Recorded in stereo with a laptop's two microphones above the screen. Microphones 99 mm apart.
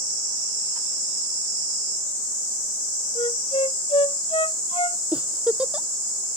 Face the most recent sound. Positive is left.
turn(degrees=-10)  # may be behind; listen again after turning